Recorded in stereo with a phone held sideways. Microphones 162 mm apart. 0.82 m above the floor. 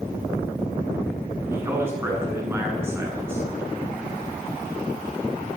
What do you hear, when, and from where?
1.5 s a man speaking: 15° right (ahead or behind), 8.5 m